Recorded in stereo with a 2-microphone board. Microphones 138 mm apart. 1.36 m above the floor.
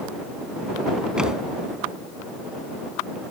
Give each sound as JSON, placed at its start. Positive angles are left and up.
{"t": 1.2, "sound": "a thud", "side_deg": -5}